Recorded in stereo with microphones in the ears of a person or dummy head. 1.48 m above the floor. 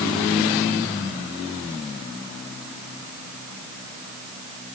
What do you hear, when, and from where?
Only background noise.